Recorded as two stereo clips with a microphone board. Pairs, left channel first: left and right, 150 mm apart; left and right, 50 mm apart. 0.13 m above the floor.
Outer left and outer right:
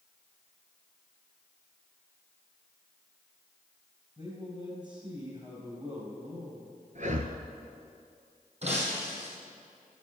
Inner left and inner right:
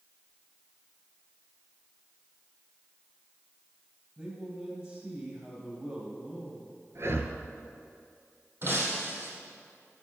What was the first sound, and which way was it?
A man speaking, 30° right (ahead or behind).